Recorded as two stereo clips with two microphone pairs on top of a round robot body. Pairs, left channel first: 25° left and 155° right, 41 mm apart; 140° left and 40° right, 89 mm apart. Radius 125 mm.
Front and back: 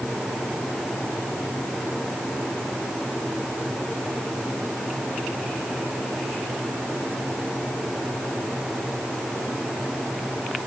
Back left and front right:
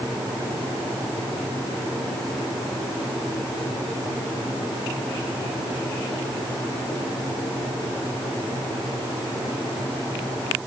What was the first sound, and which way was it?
Only background noise.